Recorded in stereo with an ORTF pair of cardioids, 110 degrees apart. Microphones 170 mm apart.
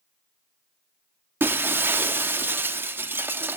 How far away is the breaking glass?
About 1.2 m.